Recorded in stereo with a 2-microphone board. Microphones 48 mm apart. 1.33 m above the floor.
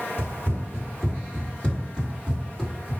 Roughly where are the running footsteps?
Left.